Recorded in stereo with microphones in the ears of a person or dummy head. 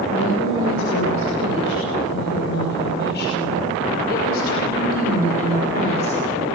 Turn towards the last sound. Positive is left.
turn(degrees=35)  # may be behind; listen again after turning